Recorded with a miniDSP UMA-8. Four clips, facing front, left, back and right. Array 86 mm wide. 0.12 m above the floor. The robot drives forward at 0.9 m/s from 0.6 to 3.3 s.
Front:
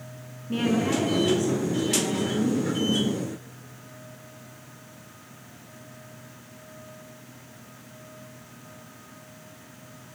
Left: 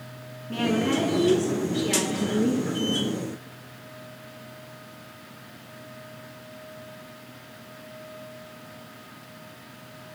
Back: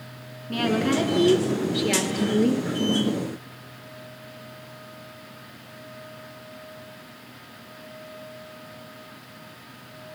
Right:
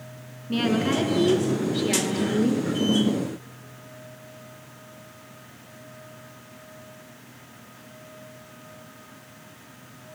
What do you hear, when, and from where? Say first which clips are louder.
0.5 s a woman speaking: right 1 dB, back 1 dB; 130° right, 1.4 m; by 2.7 s 170° right, 2.5 m